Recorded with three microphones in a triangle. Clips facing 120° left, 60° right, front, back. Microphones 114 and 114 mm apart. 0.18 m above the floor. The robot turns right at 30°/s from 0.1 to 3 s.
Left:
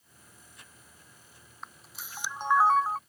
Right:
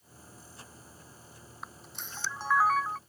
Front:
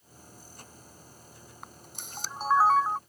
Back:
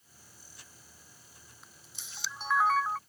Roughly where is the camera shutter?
Ahead left.